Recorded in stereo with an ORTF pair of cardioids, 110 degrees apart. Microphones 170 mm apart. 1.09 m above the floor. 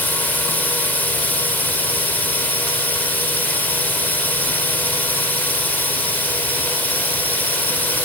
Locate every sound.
0.0 s a drone: 10° left